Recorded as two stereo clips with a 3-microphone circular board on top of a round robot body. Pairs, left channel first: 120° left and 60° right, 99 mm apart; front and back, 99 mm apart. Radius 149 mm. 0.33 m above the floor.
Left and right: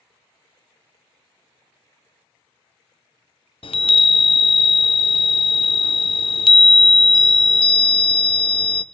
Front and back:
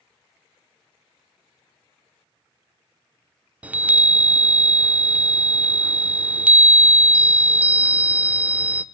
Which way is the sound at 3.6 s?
105° left.